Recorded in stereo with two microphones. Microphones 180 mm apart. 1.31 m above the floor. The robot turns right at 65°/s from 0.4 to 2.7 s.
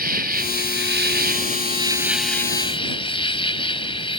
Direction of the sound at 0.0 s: 120° right.